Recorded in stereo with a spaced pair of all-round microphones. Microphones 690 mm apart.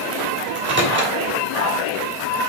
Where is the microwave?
15° right (ahead or behind), 1.6 m.